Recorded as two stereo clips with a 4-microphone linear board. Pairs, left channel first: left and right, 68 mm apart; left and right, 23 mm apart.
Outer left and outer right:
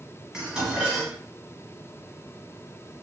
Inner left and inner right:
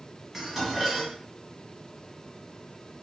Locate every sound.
0.3 s dishes clattering: 15° right (ahead or behind), 0.9 m